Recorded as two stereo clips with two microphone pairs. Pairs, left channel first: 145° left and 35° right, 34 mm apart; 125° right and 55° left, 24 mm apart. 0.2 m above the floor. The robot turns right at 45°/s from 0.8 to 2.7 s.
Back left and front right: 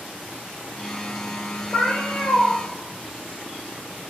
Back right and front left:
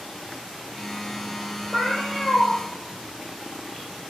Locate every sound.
1.7 s a cat meowing: 150° left, 1.2 m; by 2.5 s 175° right, 1.2 m